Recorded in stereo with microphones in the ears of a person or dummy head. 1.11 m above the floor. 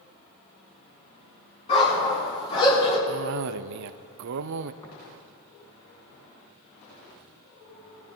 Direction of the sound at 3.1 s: 75° right (ahead or behind).